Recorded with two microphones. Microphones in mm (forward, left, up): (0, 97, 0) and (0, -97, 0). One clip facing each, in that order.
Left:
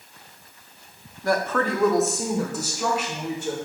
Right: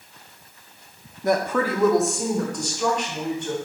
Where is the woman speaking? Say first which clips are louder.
Right 2 dB; 20° right (ahead or behind), 0.6 m; by 3.5 s 10° left (ahead or behind), 3.5 m.